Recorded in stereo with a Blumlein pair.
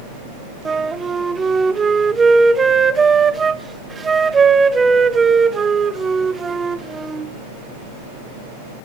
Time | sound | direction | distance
0.7 | a flute | 15° right | 0.6 m